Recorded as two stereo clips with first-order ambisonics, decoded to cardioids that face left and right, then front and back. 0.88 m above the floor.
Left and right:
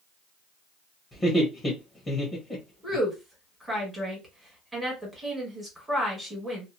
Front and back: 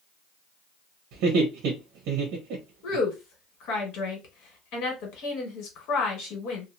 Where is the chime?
I don't hear a chime.